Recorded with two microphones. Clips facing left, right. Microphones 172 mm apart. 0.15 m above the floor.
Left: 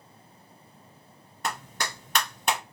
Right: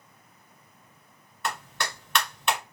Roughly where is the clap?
Left.